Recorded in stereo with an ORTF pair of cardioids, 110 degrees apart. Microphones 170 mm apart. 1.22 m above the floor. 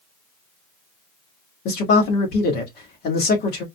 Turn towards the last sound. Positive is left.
turn(degrees=70)